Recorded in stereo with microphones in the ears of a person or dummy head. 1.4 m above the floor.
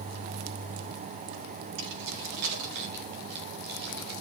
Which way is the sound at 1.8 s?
60° right (ahead or behind).